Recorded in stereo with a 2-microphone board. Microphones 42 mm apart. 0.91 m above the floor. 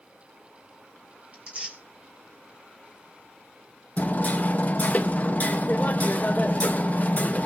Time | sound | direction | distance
1.3 | tearing paper | 35° right (ahead or behind) | 3.5 m
4.0 | hammering | 40° left (ahead or behind) | 1.0 m